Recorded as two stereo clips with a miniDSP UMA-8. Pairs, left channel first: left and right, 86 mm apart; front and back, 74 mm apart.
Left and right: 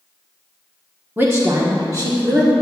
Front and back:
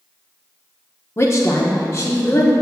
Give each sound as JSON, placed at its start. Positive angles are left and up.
{"t": 1.2, "sound": "a woman speaking", "azimuth_deg": -35, "distance_m": 0.9}